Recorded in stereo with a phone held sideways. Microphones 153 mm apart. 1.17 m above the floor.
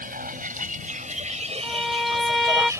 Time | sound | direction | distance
0.0 | a vehicle | 75° right (ahead or behind) | ?
1.6 | a violin | centre (ahead or behind) | ?